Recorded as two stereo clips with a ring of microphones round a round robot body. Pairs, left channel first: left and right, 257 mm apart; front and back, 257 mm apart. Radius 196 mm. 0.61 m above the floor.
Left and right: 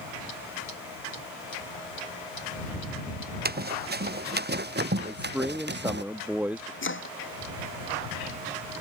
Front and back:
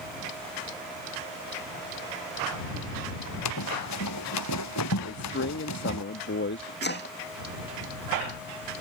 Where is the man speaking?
5° right.